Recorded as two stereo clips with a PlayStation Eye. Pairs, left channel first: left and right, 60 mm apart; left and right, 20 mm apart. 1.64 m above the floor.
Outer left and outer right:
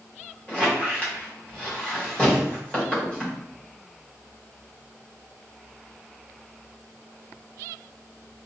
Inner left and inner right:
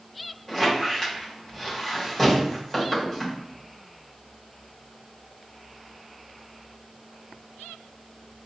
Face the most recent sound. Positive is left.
turn(degrees=20)  # may be behind; listen again after turning